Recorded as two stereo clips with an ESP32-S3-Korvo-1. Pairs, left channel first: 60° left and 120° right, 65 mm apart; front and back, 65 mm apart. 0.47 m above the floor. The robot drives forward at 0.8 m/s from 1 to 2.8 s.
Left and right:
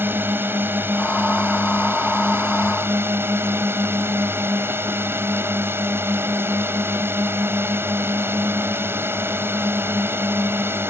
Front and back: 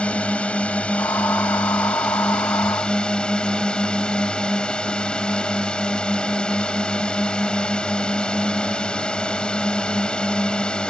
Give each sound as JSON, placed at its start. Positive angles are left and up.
{"t": 0.0, "sound": "a drone", "azimuth_deg": -70}